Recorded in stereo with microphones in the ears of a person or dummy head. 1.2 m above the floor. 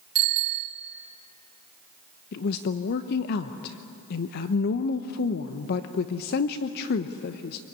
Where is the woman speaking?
55° left (ahead or behind), 0.9 m.